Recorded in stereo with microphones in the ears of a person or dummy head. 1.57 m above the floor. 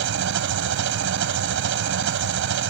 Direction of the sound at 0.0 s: 60° right (ahead or behind).